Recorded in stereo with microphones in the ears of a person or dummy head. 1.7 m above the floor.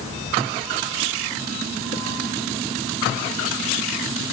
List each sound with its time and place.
Only background noise.